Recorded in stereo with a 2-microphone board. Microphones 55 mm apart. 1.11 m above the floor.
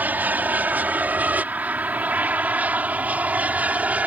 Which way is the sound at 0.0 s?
30° right (ahead or behind).